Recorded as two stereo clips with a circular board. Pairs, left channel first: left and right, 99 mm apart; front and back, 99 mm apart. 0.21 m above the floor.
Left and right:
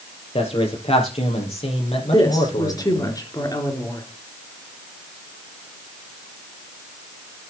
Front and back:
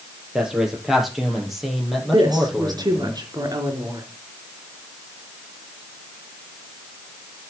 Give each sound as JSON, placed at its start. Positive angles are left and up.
{"t": 0.3, "sound": "a man speaking", "azimuth_deg": 100, "distance_m": 4.0}
{"t": 2.1, "sound": "a woman speaking", "azimuth_deg": 135, "distance_m": 3.0}